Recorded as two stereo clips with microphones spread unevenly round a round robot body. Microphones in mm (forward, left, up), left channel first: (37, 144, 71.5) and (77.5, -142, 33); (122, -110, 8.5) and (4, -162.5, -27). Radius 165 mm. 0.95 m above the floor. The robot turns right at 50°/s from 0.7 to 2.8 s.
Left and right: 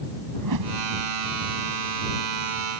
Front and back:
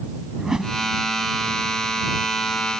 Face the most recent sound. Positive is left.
turn(degrees=40)